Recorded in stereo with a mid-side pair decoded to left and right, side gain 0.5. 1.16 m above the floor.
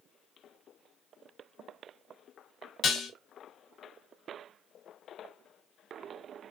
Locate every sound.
2.8 s dishes clattering: 55° left, 0.7 m